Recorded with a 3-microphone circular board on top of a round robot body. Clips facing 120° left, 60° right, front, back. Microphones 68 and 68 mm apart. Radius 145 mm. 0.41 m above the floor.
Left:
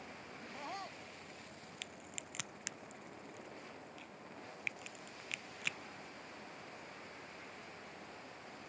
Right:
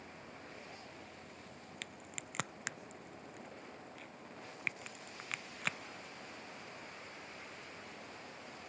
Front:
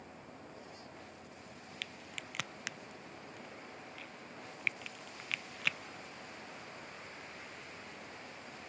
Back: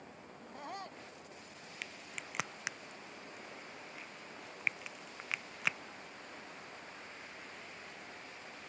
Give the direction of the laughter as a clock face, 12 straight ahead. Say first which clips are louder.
Left 5 dB, back 5 dB; 7 o'clock.